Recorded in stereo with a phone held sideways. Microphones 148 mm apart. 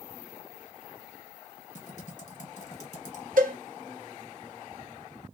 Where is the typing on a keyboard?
55° left (ahead or behind), 1.2 m.